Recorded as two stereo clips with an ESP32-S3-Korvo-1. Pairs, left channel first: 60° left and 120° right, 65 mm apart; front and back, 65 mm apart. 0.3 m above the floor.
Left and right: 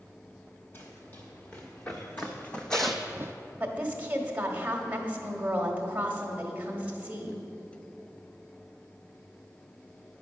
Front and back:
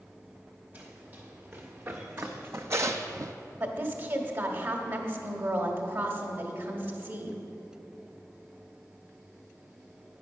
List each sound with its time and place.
0.7 s running footsteps: 115° left, 3 m; by 3.3 s 155° right, 0.5 m
3.6 s a woman speaking: 170° right, 1.2 m